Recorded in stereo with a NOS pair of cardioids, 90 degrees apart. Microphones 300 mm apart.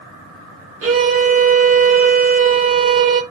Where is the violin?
50° right, 1.1 m.